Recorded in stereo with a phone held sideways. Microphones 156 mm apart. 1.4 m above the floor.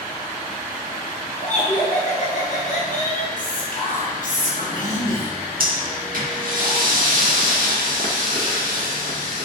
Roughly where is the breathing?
Right.